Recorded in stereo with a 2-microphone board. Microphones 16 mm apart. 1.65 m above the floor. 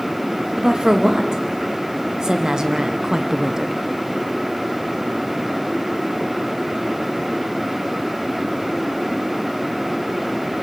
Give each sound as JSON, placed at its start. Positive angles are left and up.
{"t": 0.6, "sound": "a woman speaking", "side_deg": -45, "distance_m": 2.5}